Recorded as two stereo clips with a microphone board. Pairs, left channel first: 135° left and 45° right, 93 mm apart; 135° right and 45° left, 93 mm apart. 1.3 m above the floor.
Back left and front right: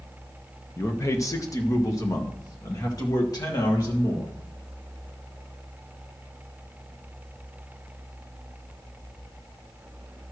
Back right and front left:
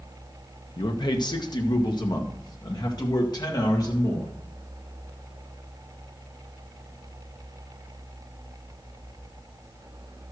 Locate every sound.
0.8 s a man speaking: 165° right, 1.0 m; by 4.3 s straight behind, 3 m